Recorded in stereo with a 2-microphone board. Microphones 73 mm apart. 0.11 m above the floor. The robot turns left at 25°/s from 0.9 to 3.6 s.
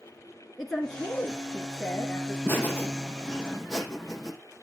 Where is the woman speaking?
Centre (ahead or behind), 1.6 m; by 2.4 s 15° left (ahead or behind), 1.6 m.